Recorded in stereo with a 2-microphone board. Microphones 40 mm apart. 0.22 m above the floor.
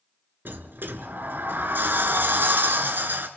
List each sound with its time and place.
0.5 s a sliding door: 55° right (ahead or behind), 1.7 m